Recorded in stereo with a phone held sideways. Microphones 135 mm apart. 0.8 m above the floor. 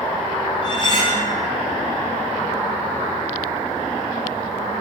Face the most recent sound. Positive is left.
turn(degrees=40)  # may be behind; listen again after turning